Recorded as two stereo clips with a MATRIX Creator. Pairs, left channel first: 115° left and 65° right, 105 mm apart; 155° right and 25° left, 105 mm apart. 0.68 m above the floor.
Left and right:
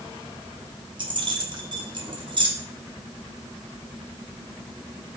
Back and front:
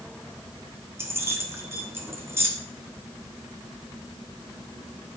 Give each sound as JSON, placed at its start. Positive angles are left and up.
{"t": 1.0, "sound": "keys jangling", "azimuth_deg": -40, "distance_m": 0.8}